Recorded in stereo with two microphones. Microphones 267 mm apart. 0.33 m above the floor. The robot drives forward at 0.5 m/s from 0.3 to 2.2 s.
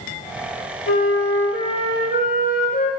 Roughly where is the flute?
Left.